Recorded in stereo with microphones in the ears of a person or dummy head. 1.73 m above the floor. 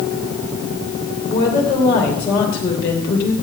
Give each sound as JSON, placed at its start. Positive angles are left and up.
{"t": 1.3, "sound": "a woman speaking", "side_deg": 15, "distance_m": 2.5}